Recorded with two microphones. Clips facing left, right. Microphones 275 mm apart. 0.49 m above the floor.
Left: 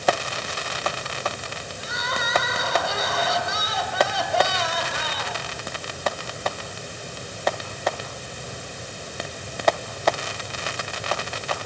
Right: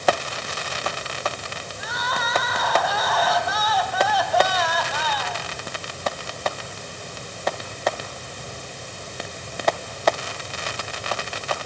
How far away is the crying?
About 4 m.